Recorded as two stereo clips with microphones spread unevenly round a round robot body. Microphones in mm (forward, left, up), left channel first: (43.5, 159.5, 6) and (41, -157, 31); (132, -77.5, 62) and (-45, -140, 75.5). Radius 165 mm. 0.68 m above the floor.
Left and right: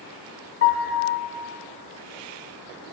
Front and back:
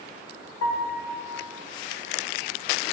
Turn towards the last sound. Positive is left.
turn(degrees=35)